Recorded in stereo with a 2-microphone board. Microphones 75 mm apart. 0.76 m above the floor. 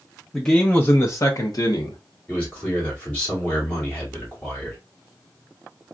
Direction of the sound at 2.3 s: 20° left (ahead or behind).